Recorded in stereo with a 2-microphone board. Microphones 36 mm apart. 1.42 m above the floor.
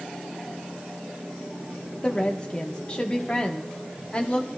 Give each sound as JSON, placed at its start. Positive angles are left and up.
{"t": 2.0, "sound": "a woman speaking", "side_deg": 25, "distance_m": 1.2}